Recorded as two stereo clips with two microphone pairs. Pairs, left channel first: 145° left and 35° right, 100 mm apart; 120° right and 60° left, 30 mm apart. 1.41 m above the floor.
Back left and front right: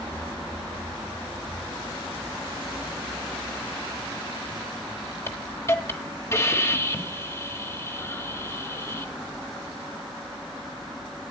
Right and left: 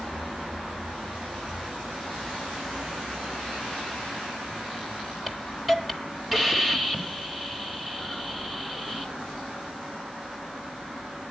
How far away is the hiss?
About 1.3 m.